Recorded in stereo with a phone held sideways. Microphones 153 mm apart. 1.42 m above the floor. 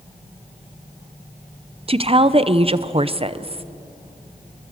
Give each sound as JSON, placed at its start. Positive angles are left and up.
{"t": 1.9, "sound": "a woman speaking", "side_deg": -40, "distance_m": 0.7}